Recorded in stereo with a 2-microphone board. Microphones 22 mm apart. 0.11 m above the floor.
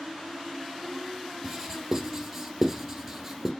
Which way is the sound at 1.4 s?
10° right (ahead or behind).